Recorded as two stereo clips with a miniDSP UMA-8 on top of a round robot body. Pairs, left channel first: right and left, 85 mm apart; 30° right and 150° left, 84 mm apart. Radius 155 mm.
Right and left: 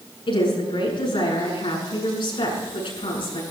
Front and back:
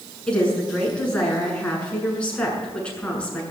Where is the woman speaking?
110° right, 7.5 m.